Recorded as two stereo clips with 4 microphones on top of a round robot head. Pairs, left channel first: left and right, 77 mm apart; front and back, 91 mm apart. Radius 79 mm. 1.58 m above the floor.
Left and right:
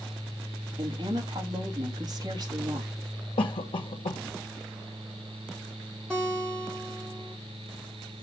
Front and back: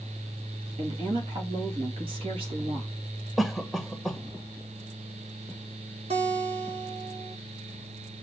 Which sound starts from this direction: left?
A cough, at 3.4 s.